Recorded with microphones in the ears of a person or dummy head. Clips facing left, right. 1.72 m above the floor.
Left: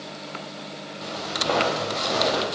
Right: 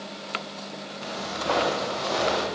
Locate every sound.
1.0 s footsteps: 35° left (ahead or behind), 2.5 m; by 2.5 s 25° left (ahead or behind), 3 m